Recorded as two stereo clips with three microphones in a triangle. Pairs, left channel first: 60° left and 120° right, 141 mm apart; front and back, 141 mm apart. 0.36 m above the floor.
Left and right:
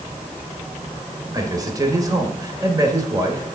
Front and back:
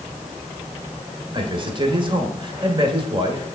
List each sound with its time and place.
1.3 s a man speaking: 165° right, 1.4 m